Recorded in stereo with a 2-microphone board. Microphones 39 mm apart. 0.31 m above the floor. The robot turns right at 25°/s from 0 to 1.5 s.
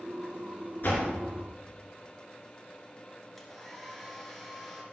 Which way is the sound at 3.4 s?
10° left (ahead or behind).